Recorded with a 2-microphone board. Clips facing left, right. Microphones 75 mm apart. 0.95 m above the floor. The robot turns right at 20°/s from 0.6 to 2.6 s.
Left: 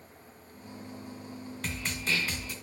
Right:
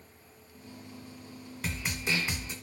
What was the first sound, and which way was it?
A snare drum, 10° right (ahead or behind).